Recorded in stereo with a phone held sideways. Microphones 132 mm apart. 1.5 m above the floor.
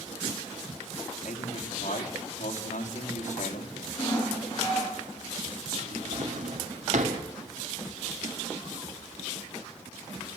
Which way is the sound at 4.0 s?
30° left (ahead or behind).